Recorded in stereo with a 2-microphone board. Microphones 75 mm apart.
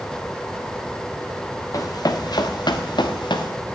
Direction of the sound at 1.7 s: 50° left (ahead or behind).